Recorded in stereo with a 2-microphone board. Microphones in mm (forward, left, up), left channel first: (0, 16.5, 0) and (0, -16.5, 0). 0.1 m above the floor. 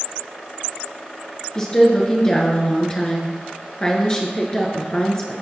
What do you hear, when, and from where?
1.6 s a woman speaking: 20° left (ahead or behind), 1.6 m